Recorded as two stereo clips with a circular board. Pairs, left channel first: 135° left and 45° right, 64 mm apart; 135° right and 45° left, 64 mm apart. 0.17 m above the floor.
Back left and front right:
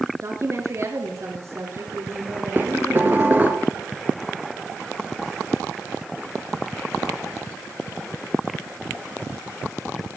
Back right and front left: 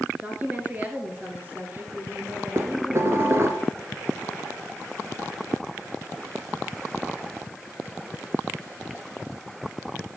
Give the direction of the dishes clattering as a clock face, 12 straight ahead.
12 o'clock.